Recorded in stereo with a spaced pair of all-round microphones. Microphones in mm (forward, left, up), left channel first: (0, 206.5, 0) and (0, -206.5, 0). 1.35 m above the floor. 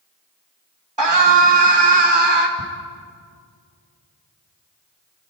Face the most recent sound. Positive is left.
turn(degrees=-60)  # may be behind; listen again after turning